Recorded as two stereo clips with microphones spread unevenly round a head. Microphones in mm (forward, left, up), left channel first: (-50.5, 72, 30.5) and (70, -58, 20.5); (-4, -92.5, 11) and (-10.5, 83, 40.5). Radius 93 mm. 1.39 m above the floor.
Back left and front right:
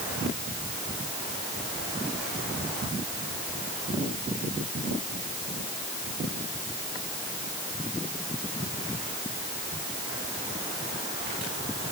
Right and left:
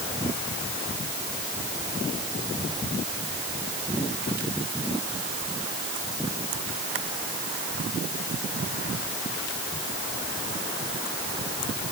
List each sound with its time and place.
Only background noise.